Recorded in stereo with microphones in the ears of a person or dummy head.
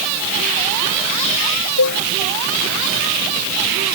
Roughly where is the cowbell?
Left.